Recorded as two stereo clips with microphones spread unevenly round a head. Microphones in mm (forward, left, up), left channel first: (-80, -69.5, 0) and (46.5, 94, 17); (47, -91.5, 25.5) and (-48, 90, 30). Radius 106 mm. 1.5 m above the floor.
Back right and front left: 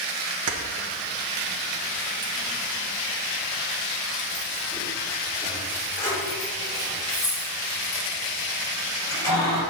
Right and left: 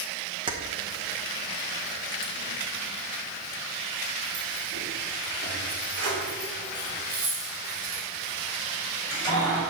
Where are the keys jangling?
50° left, 1.1 m; by 9.6 s 155° left, 7 m.